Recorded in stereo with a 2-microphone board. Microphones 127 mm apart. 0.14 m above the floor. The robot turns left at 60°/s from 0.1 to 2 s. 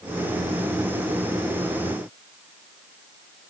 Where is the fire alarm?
I don't hear a fire alarm.